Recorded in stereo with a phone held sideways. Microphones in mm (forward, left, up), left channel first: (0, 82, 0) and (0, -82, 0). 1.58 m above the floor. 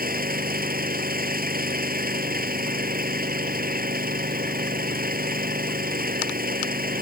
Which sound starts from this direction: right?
An engine running, at 0.0 s.